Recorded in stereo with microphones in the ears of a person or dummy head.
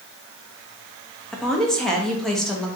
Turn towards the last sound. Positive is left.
turn(degrees=0)  # may be behind; listen again after turning